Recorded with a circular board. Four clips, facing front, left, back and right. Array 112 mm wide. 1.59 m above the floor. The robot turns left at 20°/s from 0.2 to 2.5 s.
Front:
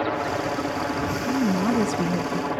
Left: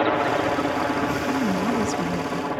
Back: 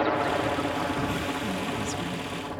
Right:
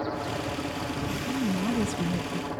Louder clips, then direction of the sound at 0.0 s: Left 10 dB, even; 90° left.